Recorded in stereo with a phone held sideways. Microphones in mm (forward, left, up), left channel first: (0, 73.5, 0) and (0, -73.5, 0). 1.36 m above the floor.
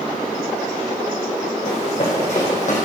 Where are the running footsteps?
45° left (ahead or behind), 5.5 m; by 2.9 s 55° left (ahead or behind), 4.5 m.